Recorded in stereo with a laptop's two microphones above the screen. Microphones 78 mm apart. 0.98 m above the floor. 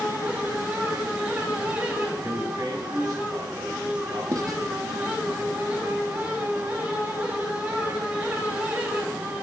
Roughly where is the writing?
Right.